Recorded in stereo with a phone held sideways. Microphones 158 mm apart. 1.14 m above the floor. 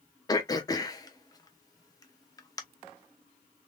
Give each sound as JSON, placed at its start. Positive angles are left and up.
{"t": 0.3, "sound": "throat clearing", "side_deg": 25, "distance_m": 0.9}